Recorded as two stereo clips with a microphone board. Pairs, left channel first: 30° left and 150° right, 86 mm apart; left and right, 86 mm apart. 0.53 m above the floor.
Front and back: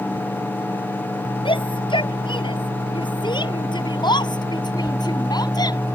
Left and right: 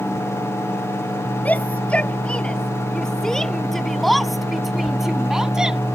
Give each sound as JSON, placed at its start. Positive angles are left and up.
{"t": 1.4, "sound": "a shout", "azimuth_deg": 15}